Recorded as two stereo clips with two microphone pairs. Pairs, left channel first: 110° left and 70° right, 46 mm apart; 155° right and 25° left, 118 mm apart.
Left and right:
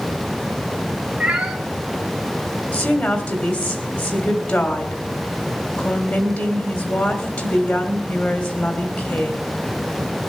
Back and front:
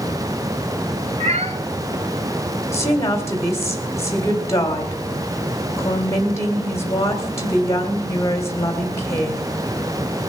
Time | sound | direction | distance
1.2 | a cat meowing | 5° left | 2.5 m
2.7 | a woman speaking | 145° left | 2.5 m